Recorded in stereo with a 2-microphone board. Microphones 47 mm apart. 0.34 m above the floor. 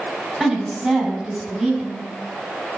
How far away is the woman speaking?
About 2 m.